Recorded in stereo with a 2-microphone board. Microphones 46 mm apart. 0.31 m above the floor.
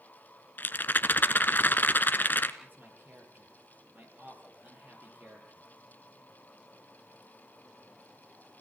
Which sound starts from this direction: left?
A rattle, at 0.6 s.